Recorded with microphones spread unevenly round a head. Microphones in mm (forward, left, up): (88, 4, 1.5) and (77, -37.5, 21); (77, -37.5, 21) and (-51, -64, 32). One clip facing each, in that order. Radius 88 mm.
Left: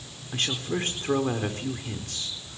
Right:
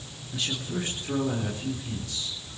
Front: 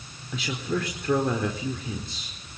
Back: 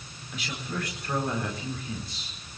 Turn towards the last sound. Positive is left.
turn(degrees=35)